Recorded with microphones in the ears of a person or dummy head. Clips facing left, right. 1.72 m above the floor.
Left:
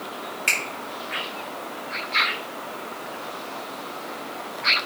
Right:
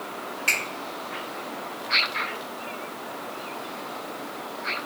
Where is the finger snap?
30° left (ahead or behind), 1.0 m.